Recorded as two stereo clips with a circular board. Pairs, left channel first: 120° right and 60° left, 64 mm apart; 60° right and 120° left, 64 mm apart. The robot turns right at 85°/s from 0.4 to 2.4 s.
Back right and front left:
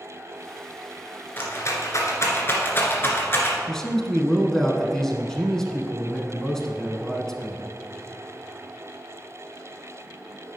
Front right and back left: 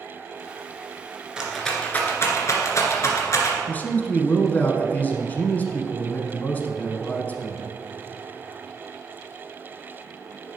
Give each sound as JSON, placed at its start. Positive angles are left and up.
{"t": 1.4, "sound": "a rattle", "azimuth_deg": -165, "distance_m": 1.7}
{"t": 3.7, "sound": "a man speaking", "azimuth_deg": -45, "distance_m": 1.1}